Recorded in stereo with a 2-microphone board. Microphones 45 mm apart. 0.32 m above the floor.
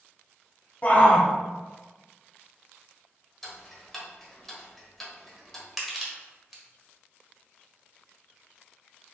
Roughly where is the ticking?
Centre.